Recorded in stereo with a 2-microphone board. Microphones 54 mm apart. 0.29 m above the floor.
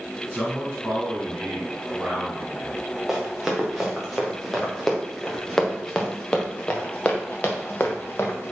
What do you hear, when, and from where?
0.3 s a man speaking: 15° right (ahead or behind), 3 m
3.1 s running footsteps: 5° right (ahead or behind), 3.5 m; by 8.5 s 45° left (ahead or behind), 1.8 m